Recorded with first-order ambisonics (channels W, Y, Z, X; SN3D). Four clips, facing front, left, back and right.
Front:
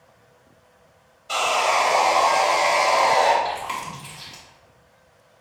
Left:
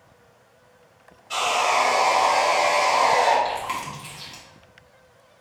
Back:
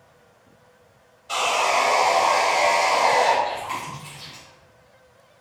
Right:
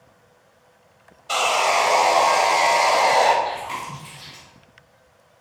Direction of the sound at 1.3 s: 90° right.